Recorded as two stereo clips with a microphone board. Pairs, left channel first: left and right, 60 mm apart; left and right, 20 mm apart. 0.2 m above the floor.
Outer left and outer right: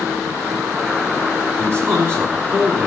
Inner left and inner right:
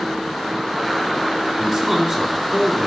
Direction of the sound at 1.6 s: 40° right (ahead or behind).